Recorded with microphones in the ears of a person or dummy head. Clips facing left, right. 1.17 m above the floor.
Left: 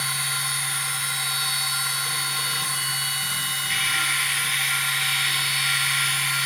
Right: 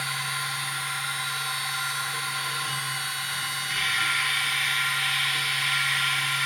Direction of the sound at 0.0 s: 55° left (ahead or behind).